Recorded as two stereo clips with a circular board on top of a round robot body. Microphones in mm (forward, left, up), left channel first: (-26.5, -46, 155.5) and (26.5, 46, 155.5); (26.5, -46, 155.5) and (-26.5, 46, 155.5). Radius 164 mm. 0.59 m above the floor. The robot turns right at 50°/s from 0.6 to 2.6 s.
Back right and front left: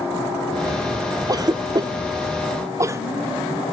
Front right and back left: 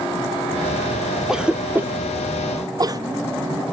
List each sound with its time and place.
1.3 s a cough: 35° left, 0.7 m; by 3.0 s 100° left, 0.7 m